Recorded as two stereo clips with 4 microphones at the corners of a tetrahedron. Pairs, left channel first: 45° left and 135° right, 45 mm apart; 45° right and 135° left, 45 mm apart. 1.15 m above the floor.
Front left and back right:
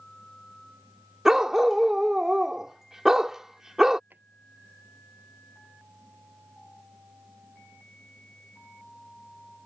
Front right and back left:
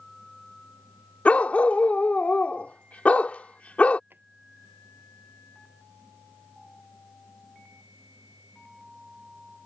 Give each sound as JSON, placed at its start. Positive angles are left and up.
{"t": 1.2, "sound": "a dog barking", "azimuth_deg": -65}
{"t": 4.1, "sound": "a drawer", "azimuth_deg": 175}